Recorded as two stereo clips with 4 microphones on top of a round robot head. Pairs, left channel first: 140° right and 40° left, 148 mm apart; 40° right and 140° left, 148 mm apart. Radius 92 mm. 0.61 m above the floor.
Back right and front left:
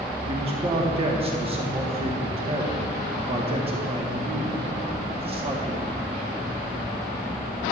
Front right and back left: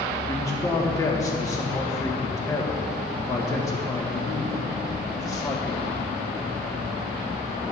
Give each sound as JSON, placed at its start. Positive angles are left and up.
{"t": 0.3, "sound": "a man speaking", "azimuth_deg": 15, "distance_m": 1.1}